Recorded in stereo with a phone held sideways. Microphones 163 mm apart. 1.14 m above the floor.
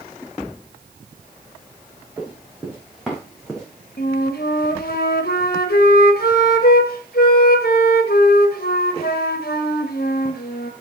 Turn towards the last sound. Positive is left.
turn(degrees=75)  # may be behind; listen again after turning